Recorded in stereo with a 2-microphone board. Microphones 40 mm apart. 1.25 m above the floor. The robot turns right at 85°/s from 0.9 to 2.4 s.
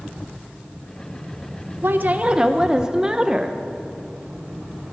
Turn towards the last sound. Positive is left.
turn(degrees=-15)